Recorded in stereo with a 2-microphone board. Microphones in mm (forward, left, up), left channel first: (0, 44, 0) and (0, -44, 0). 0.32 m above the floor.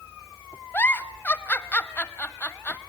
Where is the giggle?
20° left (ahead or behind), 0.7 m.